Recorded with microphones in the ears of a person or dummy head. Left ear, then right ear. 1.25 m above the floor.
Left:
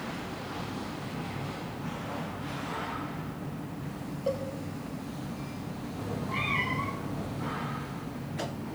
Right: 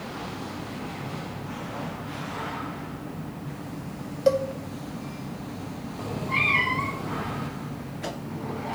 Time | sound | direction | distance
4.3 | a cowbell | 65° right (ahead or behind) | 0.8 m
6.0 | a cat meowing | 15° right (ahead or behind) | 0.5 m